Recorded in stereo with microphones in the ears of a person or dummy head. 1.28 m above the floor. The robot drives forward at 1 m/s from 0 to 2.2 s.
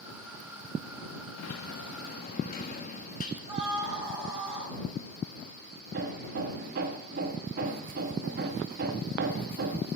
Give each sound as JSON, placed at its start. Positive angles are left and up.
{"t": 1.4, "sound": "a sliding door", "side_deg": 65, "distance_m": 0.9}
{"t": 3.5, "sound": "a scream", "side_deg": -25, "distance_m": 6.0}
{"t": 5.9, "sound": "hammering", "side_deg": -50, "distance_m": 1.4}